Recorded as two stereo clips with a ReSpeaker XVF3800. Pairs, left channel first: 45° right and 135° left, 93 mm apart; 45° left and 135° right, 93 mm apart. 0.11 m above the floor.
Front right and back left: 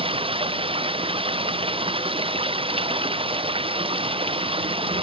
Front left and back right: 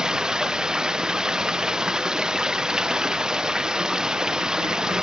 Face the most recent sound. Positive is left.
turn(degrees=145)